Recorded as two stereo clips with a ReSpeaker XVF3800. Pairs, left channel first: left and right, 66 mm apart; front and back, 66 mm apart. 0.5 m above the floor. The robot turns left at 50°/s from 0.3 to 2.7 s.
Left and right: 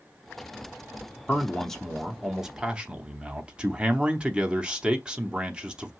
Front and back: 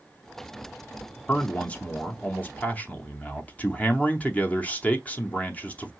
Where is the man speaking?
40° left, 0.7 m; by 5.9 s 30° right, 0.7 m.